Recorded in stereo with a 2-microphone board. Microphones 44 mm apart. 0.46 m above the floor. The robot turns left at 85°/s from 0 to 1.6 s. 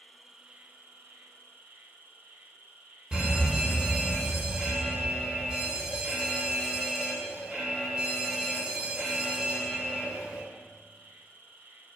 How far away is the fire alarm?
About 3 m.